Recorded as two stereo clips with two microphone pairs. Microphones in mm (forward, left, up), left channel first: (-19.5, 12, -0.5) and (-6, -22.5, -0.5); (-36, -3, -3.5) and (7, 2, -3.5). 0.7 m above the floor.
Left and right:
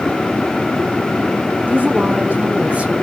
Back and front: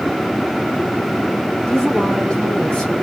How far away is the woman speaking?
About 3.5 m.